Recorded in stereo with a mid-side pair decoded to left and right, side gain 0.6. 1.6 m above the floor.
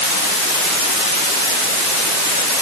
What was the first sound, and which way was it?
Only background noise.